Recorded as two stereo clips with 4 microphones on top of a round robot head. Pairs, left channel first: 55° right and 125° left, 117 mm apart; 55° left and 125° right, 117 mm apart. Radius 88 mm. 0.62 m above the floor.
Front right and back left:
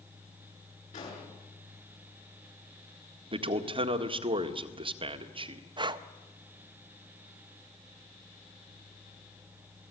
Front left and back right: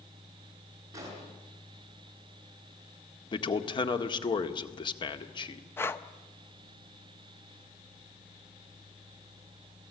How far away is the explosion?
About 9 m.